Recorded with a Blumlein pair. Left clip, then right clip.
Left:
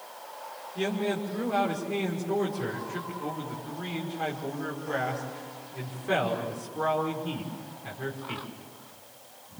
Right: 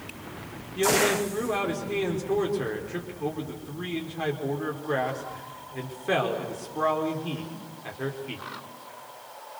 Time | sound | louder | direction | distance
0.8 | a man speaking | right 8 dB | 15° right | 5.5 m